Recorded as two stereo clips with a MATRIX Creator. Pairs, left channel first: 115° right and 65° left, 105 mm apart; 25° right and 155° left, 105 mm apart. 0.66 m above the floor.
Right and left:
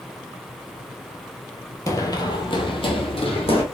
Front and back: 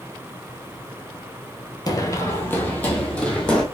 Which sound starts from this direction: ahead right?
Running footsteps, at 1.9 s.